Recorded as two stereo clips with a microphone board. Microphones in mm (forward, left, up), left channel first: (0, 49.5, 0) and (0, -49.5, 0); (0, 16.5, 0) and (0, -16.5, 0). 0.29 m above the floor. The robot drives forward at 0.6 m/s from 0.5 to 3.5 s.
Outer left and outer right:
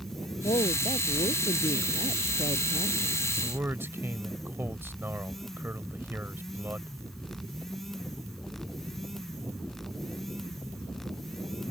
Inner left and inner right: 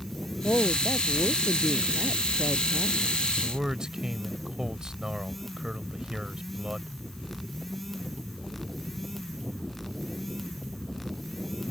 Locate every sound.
0.4 s a woman speaking: 75° left (ahead or behind); by 3.0 s 80° left
3.4 s a man speaking: 25° right (ahead or behind)